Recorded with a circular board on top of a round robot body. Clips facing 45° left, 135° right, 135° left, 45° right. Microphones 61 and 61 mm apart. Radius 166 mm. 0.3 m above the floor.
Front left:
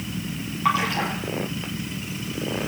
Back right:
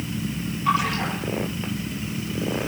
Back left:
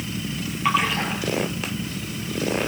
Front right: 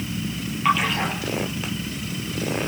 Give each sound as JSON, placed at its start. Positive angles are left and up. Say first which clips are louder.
{"t": 0.7, "sound": "a splash", "louder": "even, front right 1 dB", "azimuth_deg": 45, "distance_m": 6.0}